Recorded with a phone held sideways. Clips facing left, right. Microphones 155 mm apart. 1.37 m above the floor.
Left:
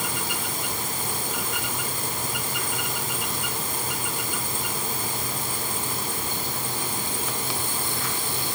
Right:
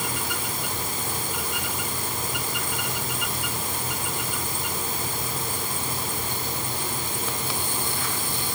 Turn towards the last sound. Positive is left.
No sound to turn to.